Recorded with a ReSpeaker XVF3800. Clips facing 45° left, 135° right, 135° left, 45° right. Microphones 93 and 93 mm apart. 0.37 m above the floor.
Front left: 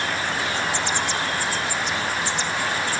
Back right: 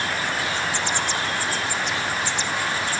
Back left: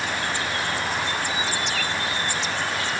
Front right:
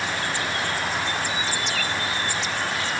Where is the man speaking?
No man speaking in this recording.